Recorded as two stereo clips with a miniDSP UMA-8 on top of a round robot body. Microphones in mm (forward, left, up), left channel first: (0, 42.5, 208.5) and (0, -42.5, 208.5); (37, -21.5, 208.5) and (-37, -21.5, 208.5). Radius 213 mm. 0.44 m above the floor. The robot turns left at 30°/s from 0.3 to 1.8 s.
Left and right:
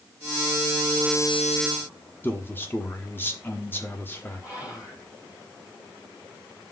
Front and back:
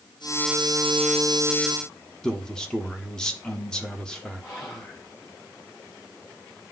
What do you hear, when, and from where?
2.2 s a man speaking: 65° left, 1.2 m
4.4 s whispering: 40° left, 3 m